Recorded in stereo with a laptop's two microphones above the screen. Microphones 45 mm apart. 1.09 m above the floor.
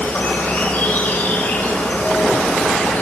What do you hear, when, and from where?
0.0 s an insect: 45° left (ahead or behind), 1.7 m